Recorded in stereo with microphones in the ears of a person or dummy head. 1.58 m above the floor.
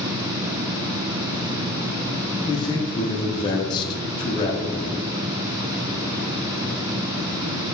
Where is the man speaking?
25° left (ahead or behind), 0.5 m.